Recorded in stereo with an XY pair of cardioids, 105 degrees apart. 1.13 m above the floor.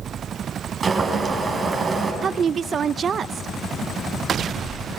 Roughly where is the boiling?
Ahead right.